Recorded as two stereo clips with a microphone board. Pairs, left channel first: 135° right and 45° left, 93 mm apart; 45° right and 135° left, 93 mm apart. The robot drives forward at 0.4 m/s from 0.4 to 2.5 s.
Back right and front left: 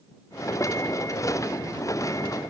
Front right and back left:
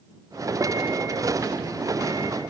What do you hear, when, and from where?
Only background noise.